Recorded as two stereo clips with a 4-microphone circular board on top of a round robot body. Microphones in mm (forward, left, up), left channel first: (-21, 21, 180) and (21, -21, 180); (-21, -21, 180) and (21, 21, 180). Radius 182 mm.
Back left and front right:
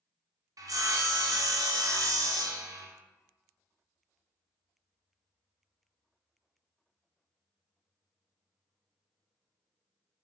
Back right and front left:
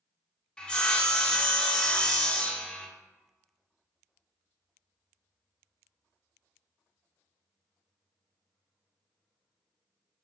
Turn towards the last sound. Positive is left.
turn(degrees=-65)